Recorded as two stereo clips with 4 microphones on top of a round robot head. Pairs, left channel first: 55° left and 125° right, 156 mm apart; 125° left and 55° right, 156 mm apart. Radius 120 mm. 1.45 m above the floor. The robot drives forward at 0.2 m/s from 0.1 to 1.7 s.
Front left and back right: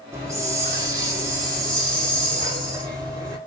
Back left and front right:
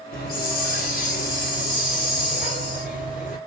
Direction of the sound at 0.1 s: 160° left.